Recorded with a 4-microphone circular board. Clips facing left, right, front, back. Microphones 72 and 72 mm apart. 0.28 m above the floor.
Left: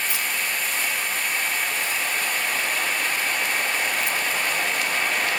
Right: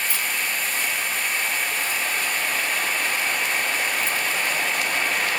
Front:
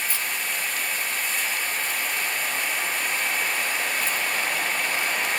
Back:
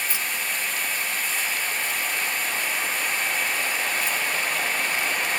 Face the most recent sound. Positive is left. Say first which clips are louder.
# even, even
turn(degrees=135)